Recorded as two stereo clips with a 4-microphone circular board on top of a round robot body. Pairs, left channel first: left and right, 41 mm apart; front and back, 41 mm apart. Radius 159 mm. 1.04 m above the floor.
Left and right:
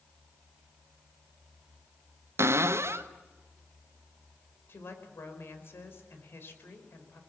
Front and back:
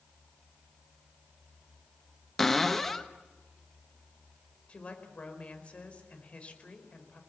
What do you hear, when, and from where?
2.4 s a cupboard door: 80° right, 1.2 m
4.7 s a woman speaking: 60° left, 4.5 m